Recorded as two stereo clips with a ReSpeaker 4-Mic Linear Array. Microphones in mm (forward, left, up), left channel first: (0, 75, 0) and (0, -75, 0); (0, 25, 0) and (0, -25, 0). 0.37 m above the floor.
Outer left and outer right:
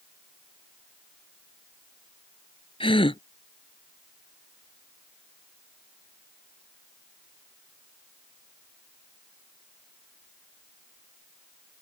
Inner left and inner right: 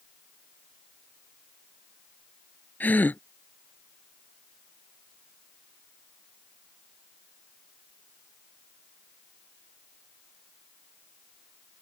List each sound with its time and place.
2.8 s a gasp: 40° left (ahead or behind)